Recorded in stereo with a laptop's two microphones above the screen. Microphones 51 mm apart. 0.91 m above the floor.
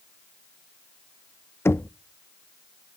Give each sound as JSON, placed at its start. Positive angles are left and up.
{"t": 1.6, "sound": "knocking", "side_deg": 55, "distance_m": 0.5}